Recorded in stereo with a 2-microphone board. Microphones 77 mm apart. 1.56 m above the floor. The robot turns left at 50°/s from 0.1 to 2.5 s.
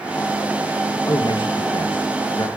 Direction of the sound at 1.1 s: 130° left.